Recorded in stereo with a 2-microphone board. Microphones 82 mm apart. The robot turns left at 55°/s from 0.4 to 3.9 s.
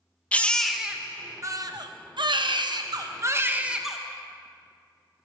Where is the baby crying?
15° left, 0.7 m; by 4.0 s 175° right, 0.7 m.